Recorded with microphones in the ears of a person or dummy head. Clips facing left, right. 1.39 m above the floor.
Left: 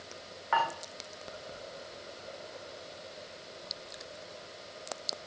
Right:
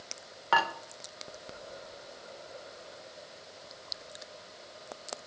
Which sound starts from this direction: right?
Dishes clattering, at 0.5 s.